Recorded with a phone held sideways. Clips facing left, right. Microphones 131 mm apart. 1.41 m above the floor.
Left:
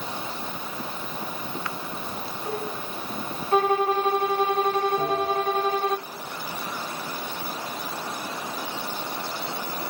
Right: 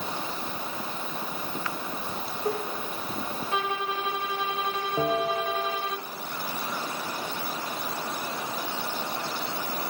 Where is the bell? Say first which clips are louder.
Left 1 dB; 45° right (ahead or behind), 2 m.